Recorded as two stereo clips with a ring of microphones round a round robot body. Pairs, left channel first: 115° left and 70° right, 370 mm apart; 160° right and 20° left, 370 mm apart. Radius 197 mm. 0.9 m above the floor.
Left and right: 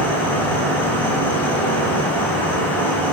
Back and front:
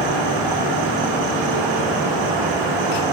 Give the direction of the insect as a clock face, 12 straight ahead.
11 o'clock.